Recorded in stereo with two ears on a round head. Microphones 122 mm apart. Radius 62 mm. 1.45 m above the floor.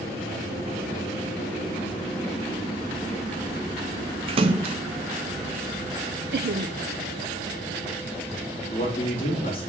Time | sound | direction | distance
4.3 | a splash | 40° right (ahead or behind) | 0.6 m
6.3 | laughter | 70° right (ahead or behind) | 0.5 m
8.7 | a man speaking | 40° left (ahead or behind) | 2.5 m